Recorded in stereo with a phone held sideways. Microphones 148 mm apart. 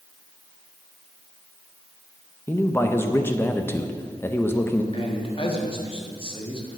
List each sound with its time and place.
2.5 s a man speaking: 15° left (ahead or behind), 0.7 m
4.9 s a man speaking: 40° left (ahead or behind), 1.6 m